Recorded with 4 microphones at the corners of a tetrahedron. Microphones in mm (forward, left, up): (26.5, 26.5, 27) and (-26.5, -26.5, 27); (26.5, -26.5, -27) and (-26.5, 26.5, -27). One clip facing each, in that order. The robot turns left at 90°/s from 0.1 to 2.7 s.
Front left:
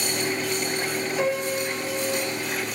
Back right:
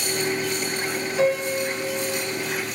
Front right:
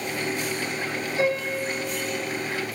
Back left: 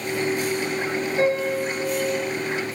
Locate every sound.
1.2 s a piano: 140° left, 1.0 m; by 2.3 s 35° left, 1.0 m